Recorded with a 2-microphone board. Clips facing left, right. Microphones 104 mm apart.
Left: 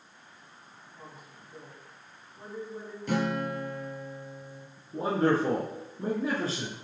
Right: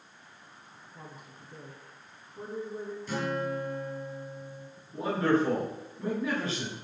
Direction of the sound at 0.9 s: 45° right (ahead or behind).